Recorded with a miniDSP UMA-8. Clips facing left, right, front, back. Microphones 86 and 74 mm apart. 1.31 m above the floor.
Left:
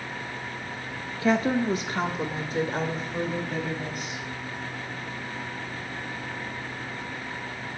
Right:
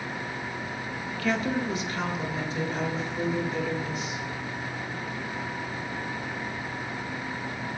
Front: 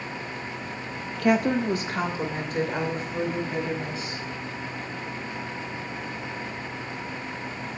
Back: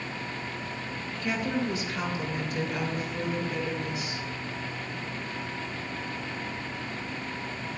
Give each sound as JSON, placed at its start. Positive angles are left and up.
{"t": 1.2, "sound": "a woman speaking", "azimuth_deg": 25, "distance_m": 0.7}